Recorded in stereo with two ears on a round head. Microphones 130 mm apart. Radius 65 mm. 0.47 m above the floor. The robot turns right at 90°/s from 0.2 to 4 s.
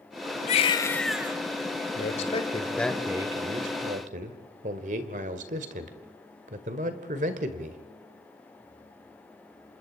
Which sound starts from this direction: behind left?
A baby crying, at 0.5 s.